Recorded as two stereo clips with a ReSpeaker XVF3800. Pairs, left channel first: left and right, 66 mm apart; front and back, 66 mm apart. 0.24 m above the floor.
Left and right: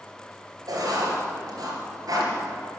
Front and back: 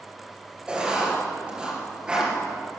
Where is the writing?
105° right, 4 m.